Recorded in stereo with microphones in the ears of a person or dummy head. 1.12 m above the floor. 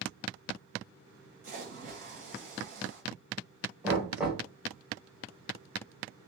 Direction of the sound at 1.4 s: 45° right (ahead or behind).